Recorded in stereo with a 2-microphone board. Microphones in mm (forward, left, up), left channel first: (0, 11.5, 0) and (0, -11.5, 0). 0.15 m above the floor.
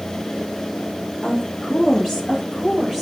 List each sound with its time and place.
1.2 s a woman speaking: 30° left (ahead or behind), 2.5 m; by 3.0 s 5° right (ahead or behind), 4 m